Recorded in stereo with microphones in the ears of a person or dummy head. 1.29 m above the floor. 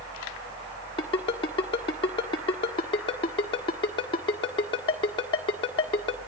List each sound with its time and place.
1.0 s a ringtone: 25° left (ahead or behind), 1.4 m